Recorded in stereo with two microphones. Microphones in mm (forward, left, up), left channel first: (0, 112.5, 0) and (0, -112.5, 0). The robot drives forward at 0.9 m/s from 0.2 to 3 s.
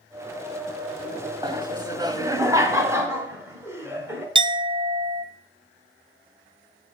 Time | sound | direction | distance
1.4 | laughter | 20° right (ahead or behind) | 0.9 m
4.3 | a clink | 20° right (ahead or behind) | 0.7 m